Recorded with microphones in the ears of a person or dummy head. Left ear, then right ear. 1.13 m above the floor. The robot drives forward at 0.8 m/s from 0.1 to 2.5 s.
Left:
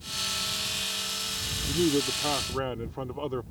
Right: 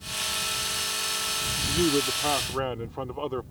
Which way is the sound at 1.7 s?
30° right (ahead or behind).